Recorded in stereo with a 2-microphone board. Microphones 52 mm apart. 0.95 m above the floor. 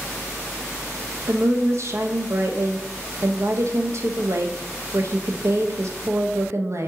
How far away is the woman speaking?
About 0.6 m.